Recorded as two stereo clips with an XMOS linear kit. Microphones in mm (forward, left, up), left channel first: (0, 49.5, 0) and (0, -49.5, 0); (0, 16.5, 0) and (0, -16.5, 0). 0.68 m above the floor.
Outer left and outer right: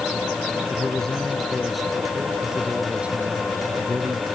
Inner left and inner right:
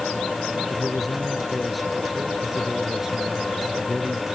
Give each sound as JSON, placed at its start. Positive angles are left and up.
{"t": 0.7, "sound": "a man speaking", "side_deg": 10}